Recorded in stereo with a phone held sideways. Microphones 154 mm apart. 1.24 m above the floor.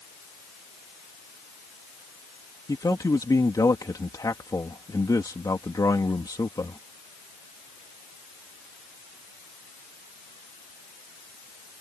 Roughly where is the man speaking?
Left.